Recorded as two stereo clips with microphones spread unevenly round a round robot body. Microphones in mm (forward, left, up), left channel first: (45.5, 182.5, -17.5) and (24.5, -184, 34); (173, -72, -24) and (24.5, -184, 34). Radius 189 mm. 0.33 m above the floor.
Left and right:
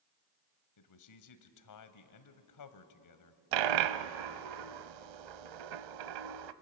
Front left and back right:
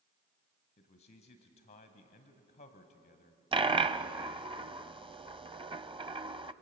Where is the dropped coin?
70° right, 0.8 m.